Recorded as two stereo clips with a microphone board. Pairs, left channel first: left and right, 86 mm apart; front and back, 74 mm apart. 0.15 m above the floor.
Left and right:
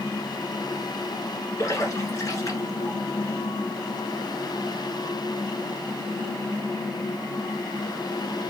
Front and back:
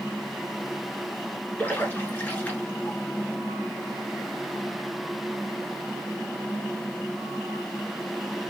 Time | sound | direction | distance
1.6 | a splash | 60° left | 1.6 m